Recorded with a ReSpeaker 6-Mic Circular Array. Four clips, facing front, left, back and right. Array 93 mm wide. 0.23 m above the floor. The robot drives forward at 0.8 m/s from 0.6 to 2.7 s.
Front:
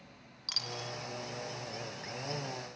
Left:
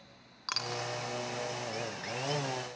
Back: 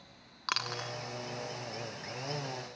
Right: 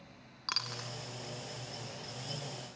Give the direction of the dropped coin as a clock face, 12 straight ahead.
6 o'clock.